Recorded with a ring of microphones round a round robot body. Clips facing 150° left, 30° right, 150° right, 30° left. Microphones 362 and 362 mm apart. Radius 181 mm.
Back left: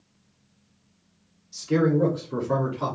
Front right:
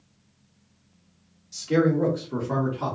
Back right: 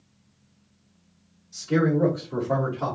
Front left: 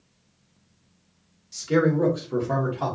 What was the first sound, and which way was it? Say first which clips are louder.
A man speaking: even, front left 1 dB; 25° left.